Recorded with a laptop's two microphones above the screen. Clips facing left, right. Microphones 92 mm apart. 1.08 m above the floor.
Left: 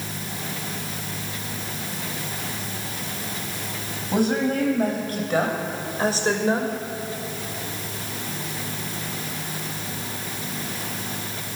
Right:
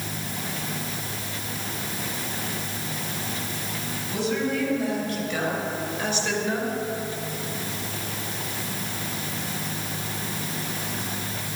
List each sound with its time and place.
4.1 s a woman speaking: 55° left (ahead or behind), 7.5 m; by 6.7 s 35° left (ahead or behind), 4.5 m